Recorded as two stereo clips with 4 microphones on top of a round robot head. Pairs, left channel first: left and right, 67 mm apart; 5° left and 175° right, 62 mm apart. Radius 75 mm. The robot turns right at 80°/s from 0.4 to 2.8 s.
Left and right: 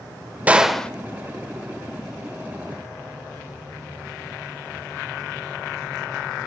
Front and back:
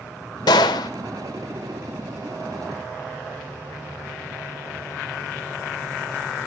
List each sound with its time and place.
0.5 s a gunshot: 20° right, 1.3 m; by 0.9 s 15° left, 1.3 m